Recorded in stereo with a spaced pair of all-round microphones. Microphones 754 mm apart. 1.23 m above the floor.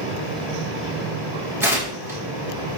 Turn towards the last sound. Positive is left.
turn(degrees=-5)  # may be behind; listen again after turning